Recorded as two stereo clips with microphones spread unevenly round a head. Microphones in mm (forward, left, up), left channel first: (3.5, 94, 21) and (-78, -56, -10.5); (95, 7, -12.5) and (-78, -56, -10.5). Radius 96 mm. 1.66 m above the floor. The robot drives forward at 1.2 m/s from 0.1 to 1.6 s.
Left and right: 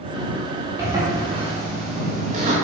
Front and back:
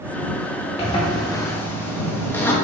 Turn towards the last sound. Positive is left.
turn(degrees=-60)